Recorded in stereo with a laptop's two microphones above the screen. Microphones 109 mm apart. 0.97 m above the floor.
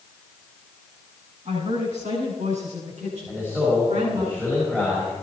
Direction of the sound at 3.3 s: 20° right (ahead or behind).